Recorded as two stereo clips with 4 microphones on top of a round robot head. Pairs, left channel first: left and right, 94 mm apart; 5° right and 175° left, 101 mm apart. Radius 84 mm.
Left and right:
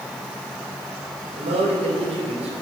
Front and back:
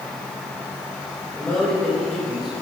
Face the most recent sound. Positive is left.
turn(degrees=-100)